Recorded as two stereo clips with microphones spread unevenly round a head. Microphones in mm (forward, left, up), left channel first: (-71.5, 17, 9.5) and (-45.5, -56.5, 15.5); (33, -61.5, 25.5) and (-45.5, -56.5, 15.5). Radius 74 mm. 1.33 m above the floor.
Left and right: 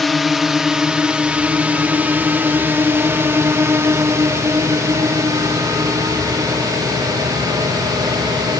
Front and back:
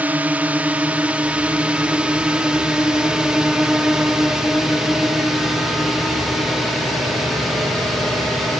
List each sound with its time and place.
0.0 s a drone: 170° right; by 8.6 s 95° right